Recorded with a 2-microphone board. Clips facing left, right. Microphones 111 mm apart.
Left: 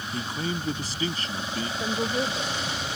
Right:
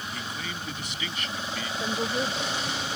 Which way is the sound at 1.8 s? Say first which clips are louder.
Left 1 dB; 5° left (ahead or behind).